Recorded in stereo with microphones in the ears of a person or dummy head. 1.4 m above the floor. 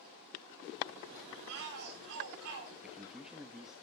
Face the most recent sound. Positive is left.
turn(degrees=-5)  # may be behind; listen again after turning